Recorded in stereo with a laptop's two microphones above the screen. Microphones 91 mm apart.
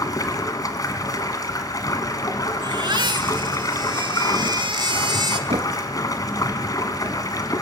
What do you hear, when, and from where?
0.0 s running water: 40° left (ahead or behind), 2 m
2.6 s a baby crying: 55° right (ahead or behind), 1.2 m
5.5 s knocking: 80° right, 1.1 m